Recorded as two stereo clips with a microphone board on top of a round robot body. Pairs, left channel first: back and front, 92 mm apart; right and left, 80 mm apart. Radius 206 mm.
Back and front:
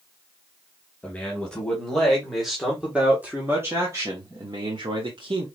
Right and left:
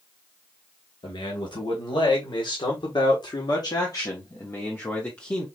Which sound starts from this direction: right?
A man speaking, at 1.0 s.